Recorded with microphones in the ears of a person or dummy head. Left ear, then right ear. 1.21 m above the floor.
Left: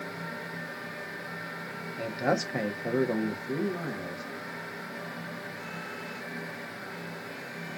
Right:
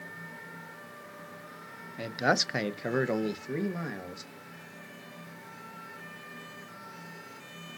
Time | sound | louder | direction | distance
2.0 | a man speaking | right 2 dB | 15° right (ahead or behind) | 0.7 m